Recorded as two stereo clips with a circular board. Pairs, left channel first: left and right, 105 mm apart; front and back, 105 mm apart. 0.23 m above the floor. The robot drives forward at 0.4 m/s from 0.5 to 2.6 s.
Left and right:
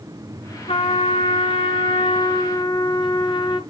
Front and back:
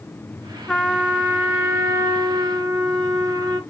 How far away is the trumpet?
About 1.0 m.